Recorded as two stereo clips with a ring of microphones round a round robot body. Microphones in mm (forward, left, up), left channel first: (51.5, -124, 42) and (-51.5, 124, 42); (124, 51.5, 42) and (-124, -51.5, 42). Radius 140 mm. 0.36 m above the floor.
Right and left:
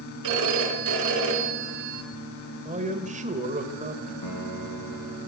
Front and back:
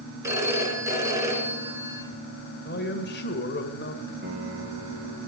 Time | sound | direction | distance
0.2 | a phone ringing | 125° left | 3.5 m
2.6 | a man speaking | 60° left | 1.8 m
4.2 | a piano | 100° right | 3 m